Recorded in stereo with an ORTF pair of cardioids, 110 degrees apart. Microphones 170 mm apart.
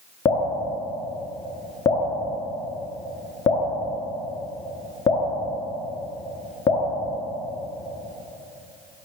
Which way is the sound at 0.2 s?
30° left.